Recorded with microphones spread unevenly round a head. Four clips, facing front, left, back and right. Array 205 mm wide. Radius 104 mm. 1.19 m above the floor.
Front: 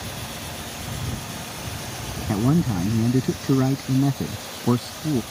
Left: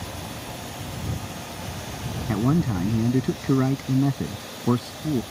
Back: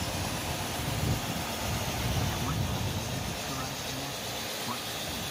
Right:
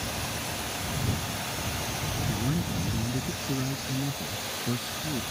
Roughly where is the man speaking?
Ahead left.